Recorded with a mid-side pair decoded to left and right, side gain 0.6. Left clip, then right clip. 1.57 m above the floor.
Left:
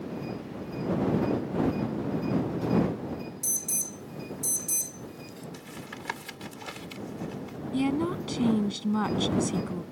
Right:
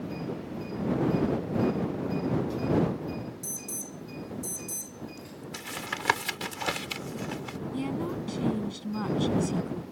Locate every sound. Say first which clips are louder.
3.4 s an alarm: left 6 dB; 40° left
5.5 s tapping: right 12 dB; 50° right
7.7 s a woman speaking: left 6 dB; 35° left